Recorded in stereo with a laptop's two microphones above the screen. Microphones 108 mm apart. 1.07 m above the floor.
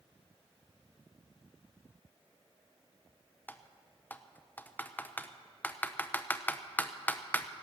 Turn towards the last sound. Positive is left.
turn(degrees=15)  # may be behind; listen again after turning